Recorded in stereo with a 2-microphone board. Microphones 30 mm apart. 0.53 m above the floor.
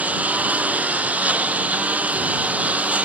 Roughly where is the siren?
I don't hear a siren.